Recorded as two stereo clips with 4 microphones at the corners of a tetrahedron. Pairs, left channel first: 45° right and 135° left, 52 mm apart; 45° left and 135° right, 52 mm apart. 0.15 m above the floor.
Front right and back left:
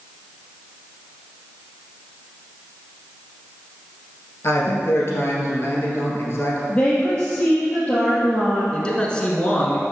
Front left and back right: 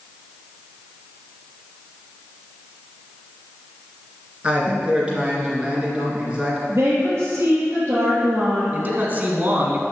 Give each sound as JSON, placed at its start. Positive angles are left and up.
{"t": 4.4, "sound": "a man speaking", "azimuth_deg": -70, "distance_m": 2.5}
{"t": 6.7, "sound": "a woman speaking", "azimuth_deg": -120, "distance_m": 3.0}
{"t": 8.7, "sound": "a man speaking", "azimuth_deg": -105, "distance_m": 1.3}